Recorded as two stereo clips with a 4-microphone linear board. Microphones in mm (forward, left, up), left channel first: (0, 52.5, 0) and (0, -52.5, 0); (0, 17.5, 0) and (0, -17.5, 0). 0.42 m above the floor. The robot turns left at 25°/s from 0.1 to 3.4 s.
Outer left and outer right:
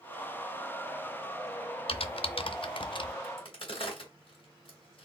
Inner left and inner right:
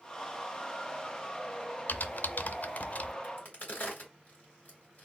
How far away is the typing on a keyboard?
About 0.5 m.